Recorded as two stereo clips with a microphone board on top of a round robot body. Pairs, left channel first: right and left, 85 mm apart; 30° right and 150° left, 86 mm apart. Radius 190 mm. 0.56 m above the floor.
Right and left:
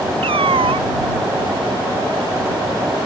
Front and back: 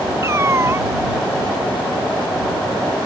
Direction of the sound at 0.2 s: 90° left.